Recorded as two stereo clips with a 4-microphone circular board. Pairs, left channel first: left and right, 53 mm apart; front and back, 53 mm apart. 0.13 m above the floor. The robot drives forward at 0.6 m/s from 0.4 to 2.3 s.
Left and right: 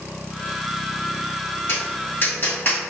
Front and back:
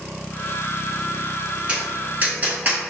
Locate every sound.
1.7 s tapping: 115° left, 1.7 m; by 2.9 s 130° left, 1.8 m